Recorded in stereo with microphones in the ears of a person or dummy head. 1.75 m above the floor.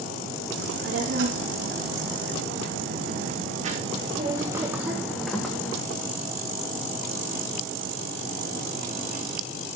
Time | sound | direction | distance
0.6 | a child speaking | 80° right | 3 m